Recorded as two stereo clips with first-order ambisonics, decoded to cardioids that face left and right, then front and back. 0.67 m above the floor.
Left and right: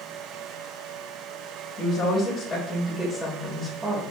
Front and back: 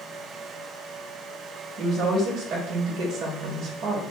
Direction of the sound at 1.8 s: 130° left.